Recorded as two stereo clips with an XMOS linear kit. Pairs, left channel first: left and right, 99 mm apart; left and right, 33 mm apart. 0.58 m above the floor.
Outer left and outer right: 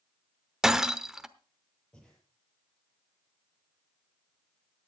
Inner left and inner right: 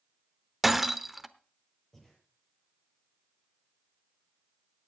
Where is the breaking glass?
5° right (ahead or behind), 0.8 m.